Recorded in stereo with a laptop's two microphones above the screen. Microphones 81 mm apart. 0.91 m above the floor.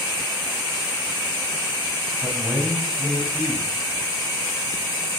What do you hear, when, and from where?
2.2 s a man speaking: 10° right (ahead or behind), 6.5 m